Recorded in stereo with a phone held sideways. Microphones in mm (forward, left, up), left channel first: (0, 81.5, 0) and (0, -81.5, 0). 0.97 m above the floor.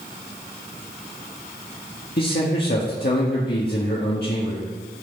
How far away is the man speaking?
About 1.5 m.